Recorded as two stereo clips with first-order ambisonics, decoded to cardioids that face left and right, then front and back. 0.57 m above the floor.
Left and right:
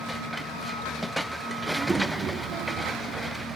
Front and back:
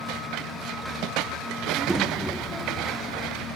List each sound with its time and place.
1.6 s a child speaking: 175° left, 0.7 m; by 3.5 s 50° right, 1.4 m